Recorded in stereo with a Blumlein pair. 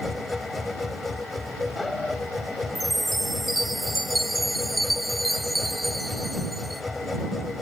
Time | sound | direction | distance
0.0 | a machine running | 10° left | ?
2.8 | a chime | straight ahead | ?